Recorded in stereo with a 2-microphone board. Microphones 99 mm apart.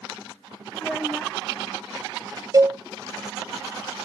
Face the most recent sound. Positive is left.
turn(degrees=-35)  # may be behind; listen again after turning